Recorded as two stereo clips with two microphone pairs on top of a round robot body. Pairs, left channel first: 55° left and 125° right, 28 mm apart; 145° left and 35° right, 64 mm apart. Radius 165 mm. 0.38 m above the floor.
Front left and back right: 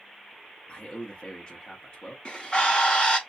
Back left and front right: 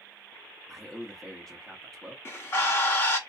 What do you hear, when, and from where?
0.7 s a man speaking: 55° left, 1.3 m
2.2 s a bird: 100° left, 2.5 m